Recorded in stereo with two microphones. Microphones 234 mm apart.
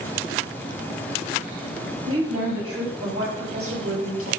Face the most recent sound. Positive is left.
turn(degrees=-65)  # may be behind; listen again after turning